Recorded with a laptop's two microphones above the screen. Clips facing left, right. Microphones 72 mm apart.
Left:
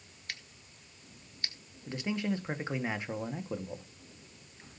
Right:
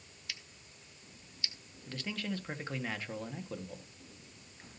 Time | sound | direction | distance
0.3 | scissors | 50° left (ahead or behind) | 0.9 m
1.9 | a man speaking | 20° left (ahead or behind) | 1.8 m